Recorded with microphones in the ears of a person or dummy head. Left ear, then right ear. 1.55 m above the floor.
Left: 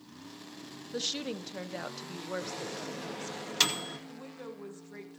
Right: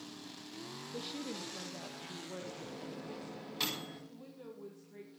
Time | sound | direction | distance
0.9 | a woman speaking | 55° left (ahead or behind) | 0.8 m
2.4 | a microwave | 55° left (ahead or behind) | 2 m
4.1 | a woman speaking | 45° left (ahead or behind) | 1.9 m